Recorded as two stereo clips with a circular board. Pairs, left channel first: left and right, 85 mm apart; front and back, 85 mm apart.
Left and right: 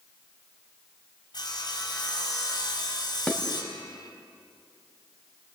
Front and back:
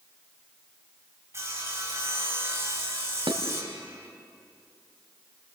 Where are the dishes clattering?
165° left, 2.0 m.